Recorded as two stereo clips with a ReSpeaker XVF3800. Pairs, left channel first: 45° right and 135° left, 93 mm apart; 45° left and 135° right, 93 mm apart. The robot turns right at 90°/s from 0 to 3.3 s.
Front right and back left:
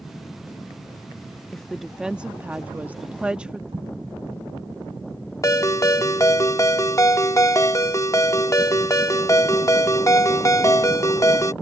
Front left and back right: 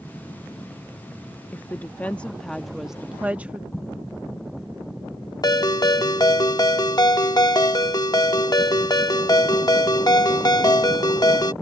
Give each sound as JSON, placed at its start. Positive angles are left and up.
{"t": 1.5, "sound": "a woman speaking", "azimuth_deg": 25}
{"t": 3.7, "sound": "an explosion", "azimuth_deg": 115}
{"t": 5.4, "sound": "a ringtone", "azimuth_deg": 5}